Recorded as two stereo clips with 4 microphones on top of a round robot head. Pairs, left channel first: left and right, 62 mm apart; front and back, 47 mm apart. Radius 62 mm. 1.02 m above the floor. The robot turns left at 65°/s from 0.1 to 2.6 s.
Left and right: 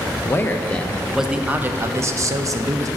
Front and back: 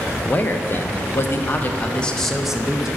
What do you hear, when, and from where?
0.2 s a man speaking: 55° left, 0.6 m; by 2.9 s 100° right, 0.6 m